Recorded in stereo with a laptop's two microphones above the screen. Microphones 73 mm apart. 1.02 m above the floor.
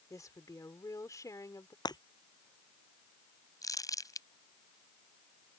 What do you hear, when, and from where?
0.1 s a woman speaking: 50° left (ahead or behind)
1.9 s breaking glass: 70° left (ahead or behind)
3.6 s crumpling: 50° left (ahead or behind)